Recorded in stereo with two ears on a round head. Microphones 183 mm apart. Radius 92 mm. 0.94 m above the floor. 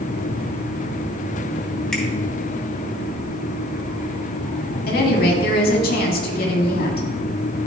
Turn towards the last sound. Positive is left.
turn(degrees=50)  # may be behind; listen again after turning